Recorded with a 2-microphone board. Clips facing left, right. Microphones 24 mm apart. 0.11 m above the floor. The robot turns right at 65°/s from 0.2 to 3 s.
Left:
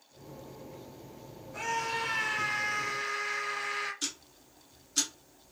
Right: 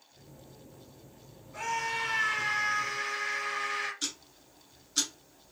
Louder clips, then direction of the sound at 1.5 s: Even; 170° left.